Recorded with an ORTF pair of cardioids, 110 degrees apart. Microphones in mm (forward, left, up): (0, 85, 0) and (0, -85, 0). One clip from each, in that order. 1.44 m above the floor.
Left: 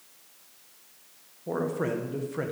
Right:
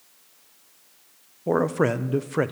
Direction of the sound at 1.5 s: 50° right.